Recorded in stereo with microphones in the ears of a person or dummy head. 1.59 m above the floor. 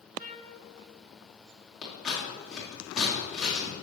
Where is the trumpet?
50° right (ahead or behind), 2 m.